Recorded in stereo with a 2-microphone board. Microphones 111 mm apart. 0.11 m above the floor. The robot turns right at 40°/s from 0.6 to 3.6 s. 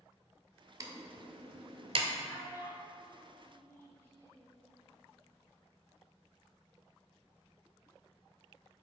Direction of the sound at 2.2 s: 35° left (ahead or behind).